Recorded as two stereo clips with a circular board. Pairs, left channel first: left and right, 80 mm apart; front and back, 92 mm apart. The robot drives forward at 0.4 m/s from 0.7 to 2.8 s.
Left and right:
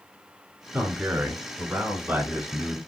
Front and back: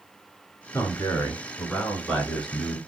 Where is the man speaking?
30° right, 1.5 m; by 2.8 s 95° right, 1.3 m.